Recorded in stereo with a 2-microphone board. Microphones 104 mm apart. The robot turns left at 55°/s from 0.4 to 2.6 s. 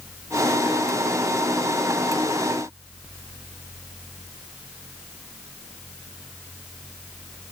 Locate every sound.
Only background noise.